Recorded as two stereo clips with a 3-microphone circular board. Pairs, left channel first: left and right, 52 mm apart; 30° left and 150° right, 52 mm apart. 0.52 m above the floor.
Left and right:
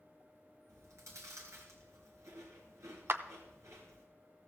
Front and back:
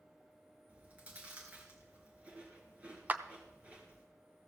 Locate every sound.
0.7 s chewing: 90° right, 3 m
3.1 s a clap: 105° right, 0.7 m